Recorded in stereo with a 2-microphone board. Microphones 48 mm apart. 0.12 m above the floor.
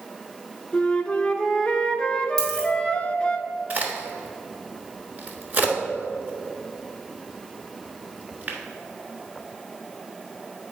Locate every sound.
0.7 s a flute: 20° left (ahead or behind), 0.5 m
2.4 s a dropped coin: 10° left (ahead or behind), 2.5 m
3.7 s a crack: 35° right (ahead or behind), 1.2 m